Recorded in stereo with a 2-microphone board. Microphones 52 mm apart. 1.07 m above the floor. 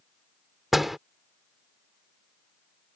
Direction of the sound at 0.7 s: Centre (ahead or behind).